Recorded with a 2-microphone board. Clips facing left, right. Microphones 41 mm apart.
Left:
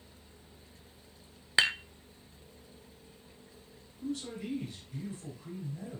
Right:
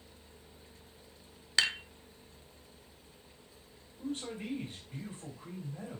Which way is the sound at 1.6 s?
20° left (ahead or behind).